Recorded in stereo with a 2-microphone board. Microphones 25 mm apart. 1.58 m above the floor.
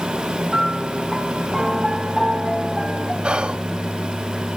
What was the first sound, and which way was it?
A piano, 25° right (ahead or behind).